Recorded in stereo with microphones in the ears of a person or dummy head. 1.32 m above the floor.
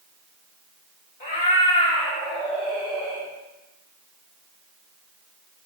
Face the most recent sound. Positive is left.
turn(degrees=-15)  # may be behind; listen again after turning